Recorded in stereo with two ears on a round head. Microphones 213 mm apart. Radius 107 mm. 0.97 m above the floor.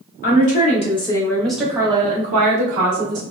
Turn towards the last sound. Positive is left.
turn(degrees=-50)  # may be behind; listen again after turning